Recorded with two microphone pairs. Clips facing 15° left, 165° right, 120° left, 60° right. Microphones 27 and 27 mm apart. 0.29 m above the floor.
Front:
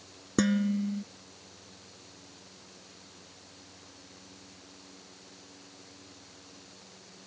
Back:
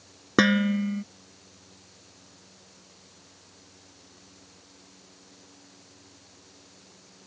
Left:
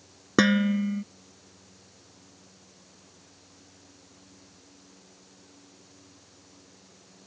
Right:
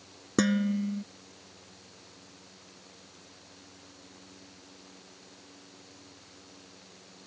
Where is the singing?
I don't hear singing.